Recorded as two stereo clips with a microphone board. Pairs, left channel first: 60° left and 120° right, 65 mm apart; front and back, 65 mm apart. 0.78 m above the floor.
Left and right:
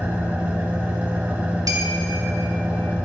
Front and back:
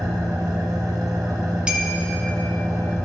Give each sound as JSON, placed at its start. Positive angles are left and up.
{"t": 0.0, "sound": "an engine running", "azimuth_deg": 175, "distance_m": 2.0}
{"t": 1.7, "sound": "a clink", "azimuth_deg": -105, "distance_m": 2.0}